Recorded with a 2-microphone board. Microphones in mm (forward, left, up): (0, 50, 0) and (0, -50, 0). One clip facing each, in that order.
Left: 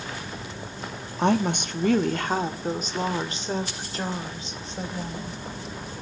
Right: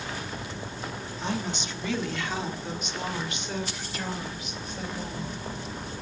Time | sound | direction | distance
1.2 | a woman speaking | 60° left (ahead or behind) | 1.0 m